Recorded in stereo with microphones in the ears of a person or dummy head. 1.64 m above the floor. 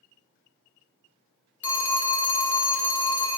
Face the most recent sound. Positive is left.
turn(degrees=15)  # may be behind; listen again after turning